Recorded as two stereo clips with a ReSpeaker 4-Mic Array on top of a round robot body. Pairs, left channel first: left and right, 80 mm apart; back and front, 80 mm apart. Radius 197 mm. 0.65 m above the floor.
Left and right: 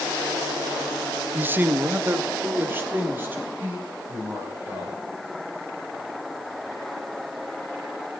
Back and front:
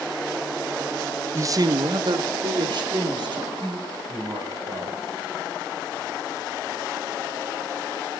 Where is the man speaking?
35° right, 0.5 m; by 5.0 s 25° right, 4.5 m.